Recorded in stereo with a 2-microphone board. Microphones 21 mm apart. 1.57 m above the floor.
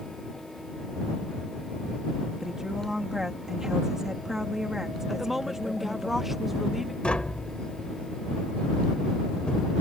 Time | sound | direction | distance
2.4 | a woman speaking | 25° right (ahead or behind) | ?
5.1 | a woman speaking | 15° right (ahead or behind) | ?
7.0 | tapping | 60° left (ahead or behind) | ?